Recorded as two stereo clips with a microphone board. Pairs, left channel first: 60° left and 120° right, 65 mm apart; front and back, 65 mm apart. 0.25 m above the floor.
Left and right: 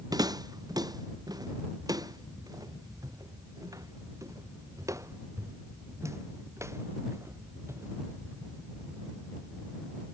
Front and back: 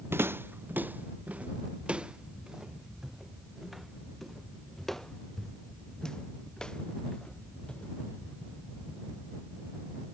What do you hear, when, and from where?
0.1 s footsteps: 125° right; by 8.3 s 70° right